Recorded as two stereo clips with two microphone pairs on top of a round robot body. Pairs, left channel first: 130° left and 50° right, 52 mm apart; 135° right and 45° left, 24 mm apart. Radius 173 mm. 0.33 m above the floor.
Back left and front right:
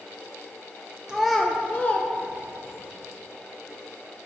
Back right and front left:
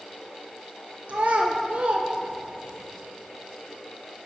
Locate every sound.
1.1 s a child speaking: 20° left, 0.5 m; by 2.8 s 95° left, 1.0 m